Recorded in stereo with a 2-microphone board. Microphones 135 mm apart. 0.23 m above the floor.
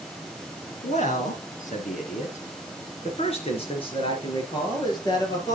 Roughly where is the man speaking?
Left.